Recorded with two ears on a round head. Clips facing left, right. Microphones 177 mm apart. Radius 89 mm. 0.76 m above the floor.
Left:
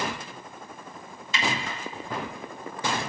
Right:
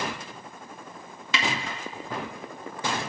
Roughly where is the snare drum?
Right.